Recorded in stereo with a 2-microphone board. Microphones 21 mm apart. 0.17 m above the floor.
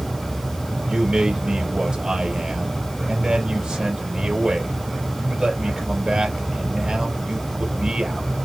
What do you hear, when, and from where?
0.9 s a man speaking: 40° right (ahead or behind), 3 m